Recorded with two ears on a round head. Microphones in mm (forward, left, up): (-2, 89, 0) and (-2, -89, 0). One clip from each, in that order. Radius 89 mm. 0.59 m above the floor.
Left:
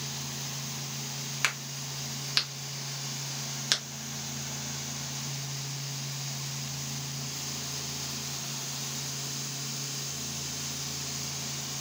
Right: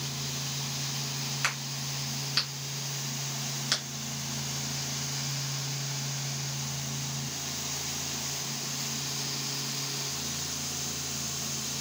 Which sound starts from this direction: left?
A crack, at 1.4 s.